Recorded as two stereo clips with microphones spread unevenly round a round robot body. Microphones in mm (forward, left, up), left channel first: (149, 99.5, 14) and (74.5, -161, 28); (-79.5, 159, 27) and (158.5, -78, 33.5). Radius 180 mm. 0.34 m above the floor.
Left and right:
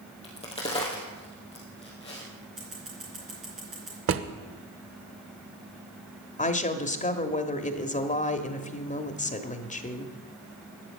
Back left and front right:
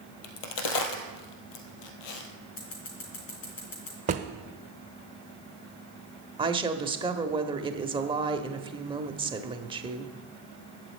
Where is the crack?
150° left, 1.9 m.